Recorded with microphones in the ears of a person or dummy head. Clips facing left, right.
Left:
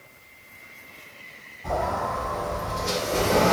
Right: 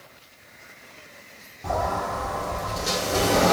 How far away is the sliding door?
About 1.8 m.